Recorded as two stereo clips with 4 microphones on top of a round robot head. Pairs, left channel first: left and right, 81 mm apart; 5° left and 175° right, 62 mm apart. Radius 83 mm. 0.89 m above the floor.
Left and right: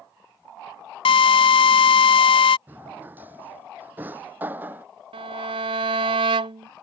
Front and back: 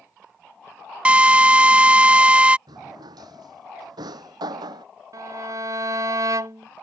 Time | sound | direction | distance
1.1 | a drill | 110° left | ?
2.7 | a drawer | 160° right | ?
5.1 | a violin | 125° right | ?